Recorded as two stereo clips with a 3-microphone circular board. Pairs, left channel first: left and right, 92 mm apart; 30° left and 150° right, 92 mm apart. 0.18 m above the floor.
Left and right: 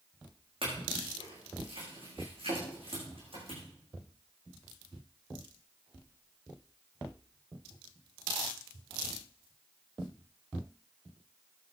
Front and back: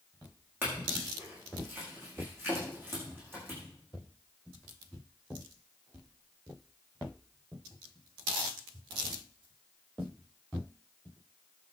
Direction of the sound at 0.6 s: 85° right.